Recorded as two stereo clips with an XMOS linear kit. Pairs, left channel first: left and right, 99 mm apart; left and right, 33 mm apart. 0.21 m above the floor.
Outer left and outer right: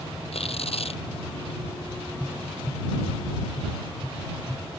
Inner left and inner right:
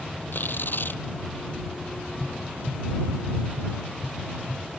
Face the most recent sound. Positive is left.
turn(degrees=5)  # may be behind; listen again after turning